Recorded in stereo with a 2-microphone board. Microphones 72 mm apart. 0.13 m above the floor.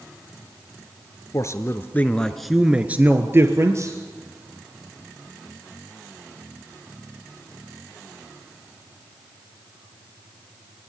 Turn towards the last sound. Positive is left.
turn(degrees=-45)  # may be behind; listen again after turning